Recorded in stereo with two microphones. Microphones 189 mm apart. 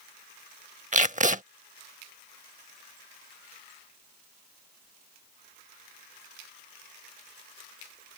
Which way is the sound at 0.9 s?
45° right (ahead or behind).